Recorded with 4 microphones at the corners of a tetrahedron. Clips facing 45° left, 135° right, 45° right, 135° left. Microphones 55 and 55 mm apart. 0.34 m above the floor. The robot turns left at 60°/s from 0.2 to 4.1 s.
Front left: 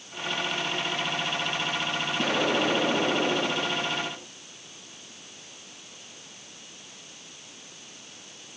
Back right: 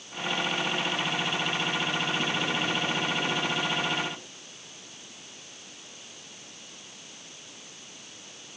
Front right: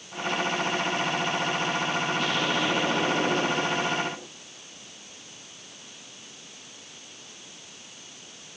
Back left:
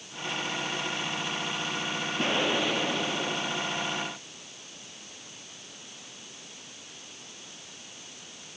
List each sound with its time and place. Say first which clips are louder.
2.2 s an explosion: front left 4 dB, front right 1 dB; 80° left; by 4.3 s 35° right